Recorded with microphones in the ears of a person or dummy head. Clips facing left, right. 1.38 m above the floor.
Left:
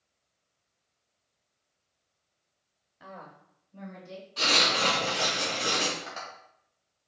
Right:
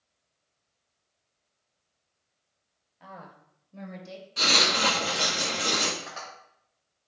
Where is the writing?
30° right (ahead or behind), 1.8 m.